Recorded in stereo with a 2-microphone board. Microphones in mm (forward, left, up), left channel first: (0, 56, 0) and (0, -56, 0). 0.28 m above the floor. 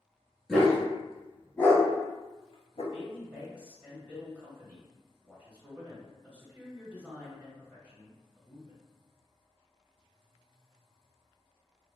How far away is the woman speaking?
About 1.0 m.